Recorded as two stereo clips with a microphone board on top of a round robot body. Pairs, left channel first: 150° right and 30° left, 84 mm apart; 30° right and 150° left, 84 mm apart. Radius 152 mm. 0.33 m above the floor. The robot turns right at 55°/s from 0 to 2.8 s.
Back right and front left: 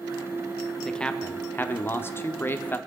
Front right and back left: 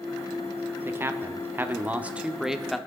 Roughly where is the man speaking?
Behind left.